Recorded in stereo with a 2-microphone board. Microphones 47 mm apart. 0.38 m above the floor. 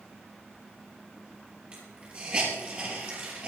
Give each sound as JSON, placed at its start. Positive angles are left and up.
{"t": 1.7, "sound": "a hiss", "side_deg": -25, "distance_m": 5.0}